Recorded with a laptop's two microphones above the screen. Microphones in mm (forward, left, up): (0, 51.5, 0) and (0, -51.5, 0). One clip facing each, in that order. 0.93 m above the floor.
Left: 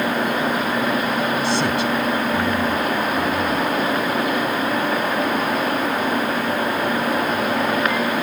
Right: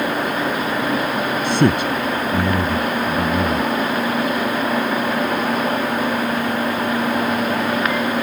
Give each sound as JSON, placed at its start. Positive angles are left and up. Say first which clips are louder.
{"t": 1.4, "sound": "a man speaking", "louder": "right 3 dB", "side_deg": -50}